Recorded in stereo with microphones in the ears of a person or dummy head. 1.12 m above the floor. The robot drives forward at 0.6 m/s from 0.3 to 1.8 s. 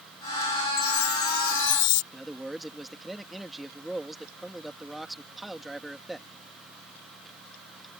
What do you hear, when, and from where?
0.8 s a chime: 65° left (ahead or behind); by 2.0 s 50° left (ahead or behind)
2.1 s a man speaking: centre (ahead or behind)